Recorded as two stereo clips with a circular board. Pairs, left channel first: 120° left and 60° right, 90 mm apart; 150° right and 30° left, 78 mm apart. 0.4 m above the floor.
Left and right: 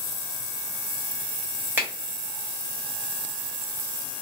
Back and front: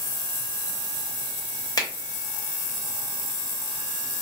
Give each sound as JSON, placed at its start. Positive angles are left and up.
{"t": 1.8, "sound": "a finger snap", "azimuth_deg": -125, "distance_m": 1.0}